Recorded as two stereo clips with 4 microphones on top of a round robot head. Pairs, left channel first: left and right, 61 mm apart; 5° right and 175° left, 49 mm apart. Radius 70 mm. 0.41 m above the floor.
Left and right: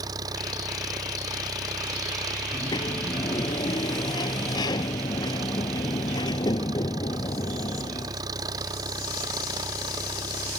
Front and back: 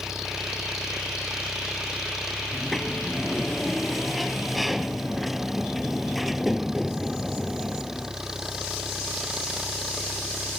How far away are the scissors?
No scissors in this recording.